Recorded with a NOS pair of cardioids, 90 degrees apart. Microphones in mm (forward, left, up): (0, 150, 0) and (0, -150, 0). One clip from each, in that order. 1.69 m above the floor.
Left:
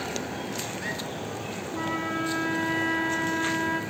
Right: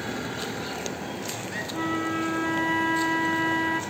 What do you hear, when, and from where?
1.7 s a flute: 5° right, 0.5 m